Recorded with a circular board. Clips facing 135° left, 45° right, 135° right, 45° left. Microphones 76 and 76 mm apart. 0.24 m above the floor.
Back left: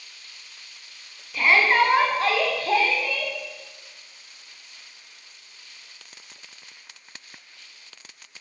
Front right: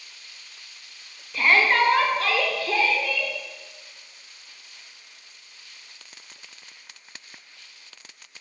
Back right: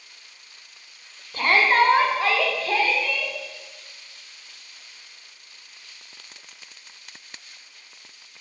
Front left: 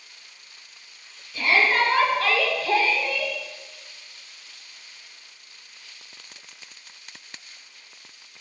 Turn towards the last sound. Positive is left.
turn(degrees=100)